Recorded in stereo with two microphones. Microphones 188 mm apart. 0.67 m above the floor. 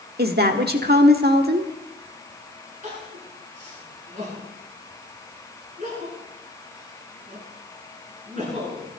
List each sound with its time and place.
0.2 s a woman speaking: 60° right (ahead or behind), 1.4 m
2.8 s crying: 45° right (ahead or behind), 10 m